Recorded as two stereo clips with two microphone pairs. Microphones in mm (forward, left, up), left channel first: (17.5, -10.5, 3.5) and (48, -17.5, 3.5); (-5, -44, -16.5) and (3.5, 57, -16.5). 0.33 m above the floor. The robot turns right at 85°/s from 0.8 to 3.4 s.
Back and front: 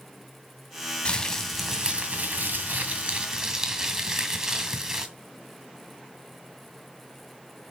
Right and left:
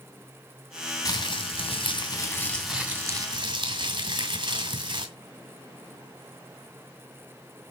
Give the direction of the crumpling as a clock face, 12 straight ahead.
5 o'clock.